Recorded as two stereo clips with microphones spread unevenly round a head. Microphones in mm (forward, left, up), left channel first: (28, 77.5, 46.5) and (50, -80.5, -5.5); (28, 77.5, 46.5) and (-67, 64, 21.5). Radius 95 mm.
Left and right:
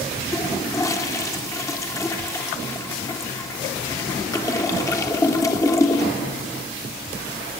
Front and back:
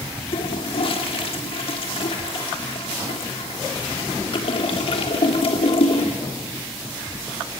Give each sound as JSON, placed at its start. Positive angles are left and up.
{"t": 0.3, "sound": "a toilet flushing", "azimuth_deg": 25, "distance_m": 3.5}